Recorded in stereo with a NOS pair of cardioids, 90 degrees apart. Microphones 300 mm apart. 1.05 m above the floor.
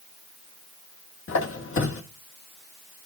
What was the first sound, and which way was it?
A squeak, 40° left.